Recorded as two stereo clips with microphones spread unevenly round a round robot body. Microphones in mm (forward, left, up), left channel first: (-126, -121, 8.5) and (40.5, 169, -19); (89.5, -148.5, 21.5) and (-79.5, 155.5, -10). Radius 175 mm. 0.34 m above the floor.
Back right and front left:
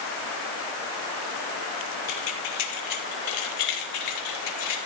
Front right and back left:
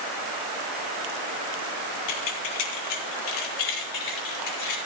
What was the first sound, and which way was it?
Keys jangling, 55° right.